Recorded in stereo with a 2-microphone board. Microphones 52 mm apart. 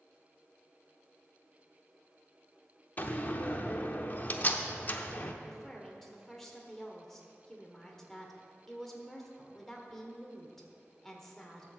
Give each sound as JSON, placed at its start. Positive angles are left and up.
{"t": 3.0, "sound": "a door slam", "side_deg": 35, "distance_m": 0.7}
{"t": 5.4, "sound": "a woman speaking", "side_deg": 5, "distance_m": 1.4}